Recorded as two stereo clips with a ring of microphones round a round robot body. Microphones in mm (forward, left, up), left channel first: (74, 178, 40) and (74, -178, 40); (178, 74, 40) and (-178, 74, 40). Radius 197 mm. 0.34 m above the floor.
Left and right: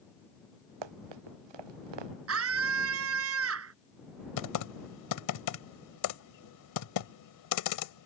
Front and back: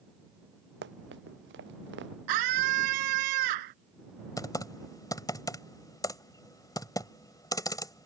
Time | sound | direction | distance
0.8 | running footsteps | 115° right | ?
2.3 | a scream | 145° right | ?
4.4 | typing on a keyboard | 80° left | ?